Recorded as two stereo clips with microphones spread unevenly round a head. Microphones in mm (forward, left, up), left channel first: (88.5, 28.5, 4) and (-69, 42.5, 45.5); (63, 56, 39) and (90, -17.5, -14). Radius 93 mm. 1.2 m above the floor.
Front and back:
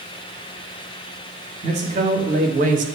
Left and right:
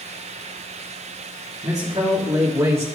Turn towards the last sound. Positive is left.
turn(degrees=-135)